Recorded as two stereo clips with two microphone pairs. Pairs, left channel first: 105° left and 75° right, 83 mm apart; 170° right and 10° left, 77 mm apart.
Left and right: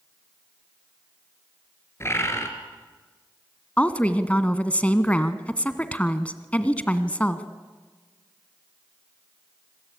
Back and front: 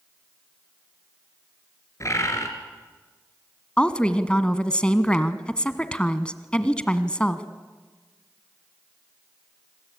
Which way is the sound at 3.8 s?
140° left.